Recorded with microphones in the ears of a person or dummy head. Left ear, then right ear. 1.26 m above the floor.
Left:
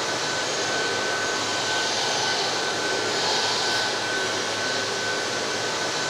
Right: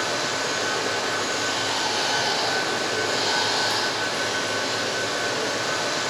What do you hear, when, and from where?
0.0 s running water: 40° right (ahead or behind), 0.8 m